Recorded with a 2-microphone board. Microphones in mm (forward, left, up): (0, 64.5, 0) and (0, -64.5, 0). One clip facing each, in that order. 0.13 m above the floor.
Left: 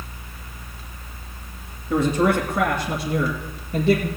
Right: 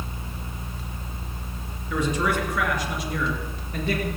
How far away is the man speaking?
About 1.8 m.